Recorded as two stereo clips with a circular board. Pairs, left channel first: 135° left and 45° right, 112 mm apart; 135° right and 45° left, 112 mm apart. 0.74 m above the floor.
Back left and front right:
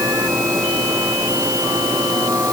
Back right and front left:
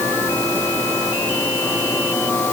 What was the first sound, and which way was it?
Only background noise.